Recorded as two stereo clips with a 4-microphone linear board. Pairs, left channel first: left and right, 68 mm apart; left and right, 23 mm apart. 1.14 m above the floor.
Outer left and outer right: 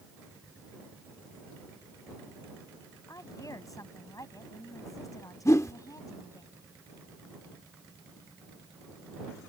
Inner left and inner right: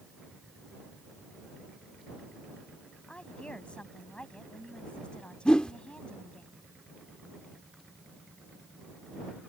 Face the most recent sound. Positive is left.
turn(degrees=50)  # may be behind; listen again after turning